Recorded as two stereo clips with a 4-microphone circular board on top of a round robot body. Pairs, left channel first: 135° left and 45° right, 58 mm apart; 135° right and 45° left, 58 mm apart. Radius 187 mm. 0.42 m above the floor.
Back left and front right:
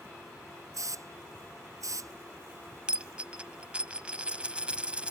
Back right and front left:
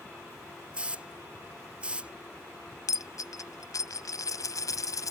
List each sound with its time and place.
0.7 s a hiss: 25° right
2.9 s a dropped coin: 115° right